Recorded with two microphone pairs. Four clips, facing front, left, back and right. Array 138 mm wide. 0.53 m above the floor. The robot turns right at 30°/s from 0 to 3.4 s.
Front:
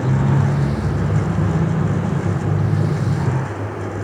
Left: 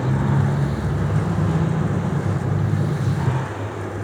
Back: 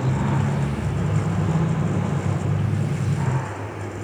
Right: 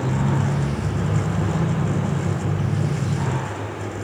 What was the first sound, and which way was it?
Only background noise.